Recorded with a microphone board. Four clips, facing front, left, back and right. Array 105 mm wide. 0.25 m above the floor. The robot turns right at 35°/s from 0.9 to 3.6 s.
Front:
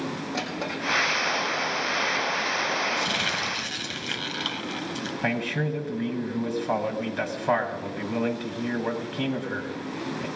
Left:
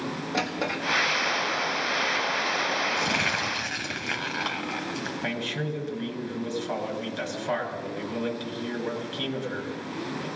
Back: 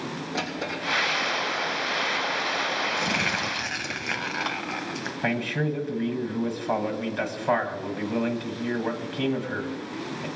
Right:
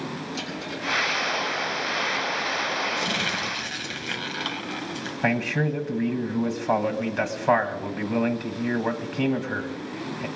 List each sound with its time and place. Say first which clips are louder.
0.3 s a drawer: left 4 dB, even; 70° left, 6 m
3.0 s crumpling: left 1 dB, back 1 dB; 130° left, 0.8 m; by 5.1 s 155° left, 0.8 m
5.2 s a man speaking: right 10 dB, back 1 dB; 90° right, 1.5 m